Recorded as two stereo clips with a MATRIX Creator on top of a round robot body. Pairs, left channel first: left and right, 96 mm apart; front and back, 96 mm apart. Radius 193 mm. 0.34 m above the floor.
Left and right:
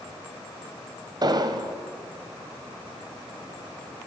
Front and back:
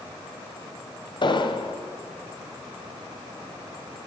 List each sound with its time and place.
1.2 s an explosion: 40° right, 1.5 m